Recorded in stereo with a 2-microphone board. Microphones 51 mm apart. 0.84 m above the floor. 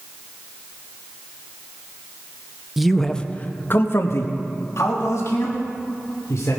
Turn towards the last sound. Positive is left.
turn(degrees=70)  # may be behind; listen again after turning